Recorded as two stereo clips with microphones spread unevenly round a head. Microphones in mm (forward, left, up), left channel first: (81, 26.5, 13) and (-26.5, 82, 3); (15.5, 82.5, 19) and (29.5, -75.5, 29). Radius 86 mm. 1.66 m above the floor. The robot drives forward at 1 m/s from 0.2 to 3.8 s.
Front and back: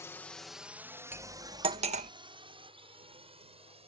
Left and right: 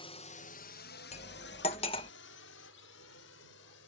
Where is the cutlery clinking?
85° left; by 2.1 s 155° left.